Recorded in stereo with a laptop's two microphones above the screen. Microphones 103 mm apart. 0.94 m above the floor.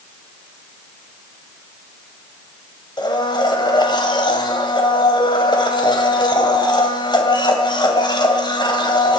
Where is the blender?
45° left (ahead or behind), 2.5 m.